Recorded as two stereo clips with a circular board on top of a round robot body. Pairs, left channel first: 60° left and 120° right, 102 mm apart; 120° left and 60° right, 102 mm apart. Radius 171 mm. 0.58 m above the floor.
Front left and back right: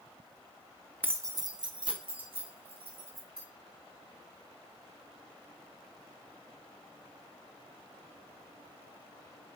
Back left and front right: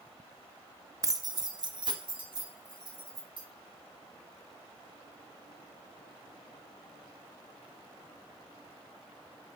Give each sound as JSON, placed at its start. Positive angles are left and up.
{"t": 1.0, "sound": "keys jangling", "azimuth_deg": -65, "distance_m": 0.5}